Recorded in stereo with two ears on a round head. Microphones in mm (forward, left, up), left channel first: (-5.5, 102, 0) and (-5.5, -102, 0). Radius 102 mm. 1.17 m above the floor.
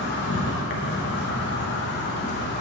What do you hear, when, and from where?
0.0 s an insect: 50° left (ahead or behind), 0.8 m